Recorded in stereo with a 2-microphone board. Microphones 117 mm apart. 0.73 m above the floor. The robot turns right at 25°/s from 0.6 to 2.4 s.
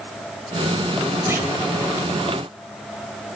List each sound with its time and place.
1.3 s a clunk: 20° right (ahead or behind), 4 m; by 1.5 s 25° right (ahead or behind), 4 m